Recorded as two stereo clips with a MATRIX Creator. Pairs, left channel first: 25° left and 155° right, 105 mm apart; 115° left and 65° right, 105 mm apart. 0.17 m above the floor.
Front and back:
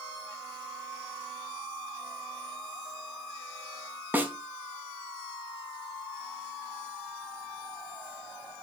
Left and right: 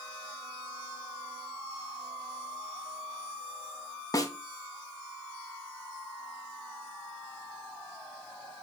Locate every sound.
4.1 s a snare drum: 140° left, 0.5 m